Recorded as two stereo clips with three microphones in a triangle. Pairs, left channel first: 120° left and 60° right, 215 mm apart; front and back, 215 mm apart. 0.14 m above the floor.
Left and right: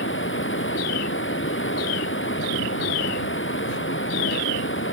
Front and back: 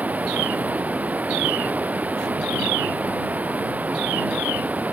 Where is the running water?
95° left.